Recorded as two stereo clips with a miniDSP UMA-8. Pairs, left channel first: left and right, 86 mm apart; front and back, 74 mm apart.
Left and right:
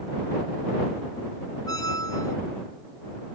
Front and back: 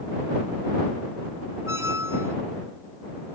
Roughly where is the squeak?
Behind left.